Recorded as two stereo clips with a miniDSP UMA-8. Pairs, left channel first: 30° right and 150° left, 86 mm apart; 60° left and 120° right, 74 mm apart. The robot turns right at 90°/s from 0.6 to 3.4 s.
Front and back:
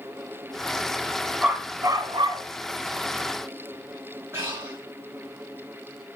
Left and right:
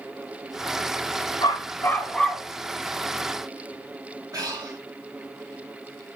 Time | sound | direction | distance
1.4 | a dog barking | 65° left | 2 m
4.3 | breathing | 155° right | 4.5 m